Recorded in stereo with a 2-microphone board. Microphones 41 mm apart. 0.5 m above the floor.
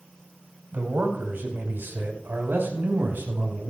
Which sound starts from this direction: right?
A man speaking, at 0.7 s.